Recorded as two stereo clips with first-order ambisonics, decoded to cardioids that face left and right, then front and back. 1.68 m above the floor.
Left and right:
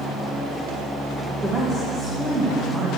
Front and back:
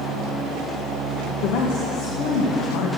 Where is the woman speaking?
15° right, 1.9 m.